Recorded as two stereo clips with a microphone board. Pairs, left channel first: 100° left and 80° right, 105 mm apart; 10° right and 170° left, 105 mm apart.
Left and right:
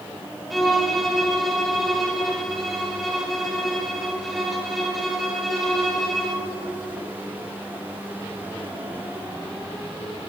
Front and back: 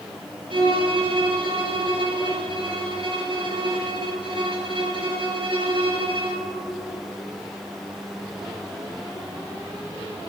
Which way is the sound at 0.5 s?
170° right.